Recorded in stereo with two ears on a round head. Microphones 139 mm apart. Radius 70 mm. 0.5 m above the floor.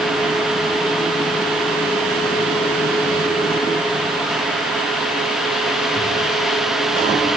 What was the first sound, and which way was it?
Only background noise.